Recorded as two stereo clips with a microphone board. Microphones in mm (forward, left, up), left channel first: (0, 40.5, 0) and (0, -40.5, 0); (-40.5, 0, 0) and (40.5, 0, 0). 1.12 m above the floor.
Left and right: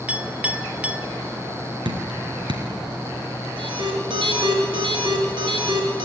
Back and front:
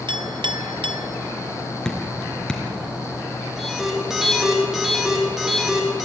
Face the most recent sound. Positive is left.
turn(degrees=-85)